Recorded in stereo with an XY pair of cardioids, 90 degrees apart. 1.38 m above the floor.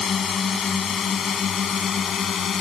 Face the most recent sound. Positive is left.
turn(degrees=60)